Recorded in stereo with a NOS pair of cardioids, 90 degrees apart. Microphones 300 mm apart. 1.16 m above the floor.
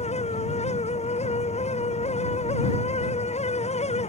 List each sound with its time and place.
0.0 s a fan: 20° left